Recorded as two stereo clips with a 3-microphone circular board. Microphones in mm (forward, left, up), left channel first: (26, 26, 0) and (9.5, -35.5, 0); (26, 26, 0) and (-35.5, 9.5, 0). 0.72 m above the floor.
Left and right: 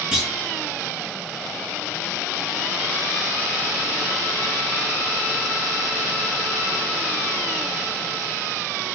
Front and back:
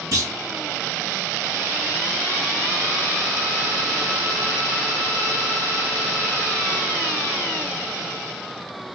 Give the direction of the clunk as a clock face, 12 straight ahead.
6 o'clock.